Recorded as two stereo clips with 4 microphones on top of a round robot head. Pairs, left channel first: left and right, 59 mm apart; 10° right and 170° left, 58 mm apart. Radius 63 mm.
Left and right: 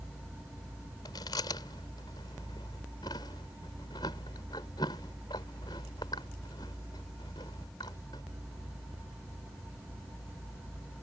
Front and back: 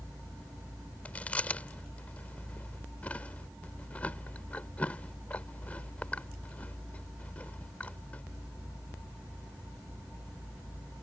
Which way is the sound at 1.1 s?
55° left.